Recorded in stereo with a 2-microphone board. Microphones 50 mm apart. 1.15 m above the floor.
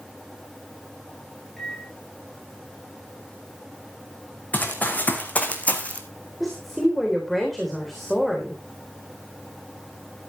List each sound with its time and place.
1.6 s a microwave: 5° left (ahead or behind), 5 m
4.5 s running footsteps: 35° left (ahead or behind), 3.5 m; by 6.0 s 30° left (ahead or behind), 2.5 m
6.4 s a woman speaking: 5° left (ahead or behind), 3.5 m